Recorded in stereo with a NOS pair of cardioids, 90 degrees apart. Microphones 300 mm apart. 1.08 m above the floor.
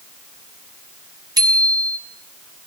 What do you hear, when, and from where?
1.4 s a bicycle bell: 15° right, 6 m